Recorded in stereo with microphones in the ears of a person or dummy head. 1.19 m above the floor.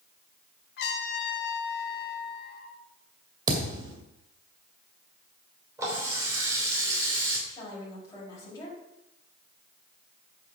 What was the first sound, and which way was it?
A trumpet, 65° left (ahead or behind).